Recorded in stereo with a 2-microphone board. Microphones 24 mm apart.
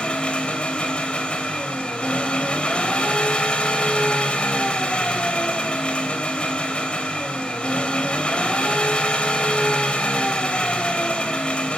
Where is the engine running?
50° left (ahead or behind), 2.5 m.